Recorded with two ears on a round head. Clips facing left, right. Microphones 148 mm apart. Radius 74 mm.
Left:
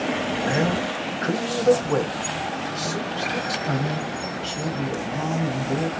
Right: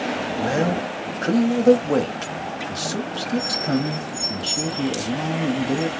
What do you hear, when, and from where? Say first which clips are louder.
0.4 s a man speaking: right 3 dB; 35° right (ahead or behind), 0.8 m